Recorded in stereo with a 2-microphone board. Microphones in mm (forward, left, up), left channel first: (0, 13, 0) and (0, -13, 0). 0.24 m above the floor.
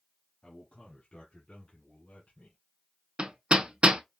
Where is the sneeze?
No sneeze in this recording.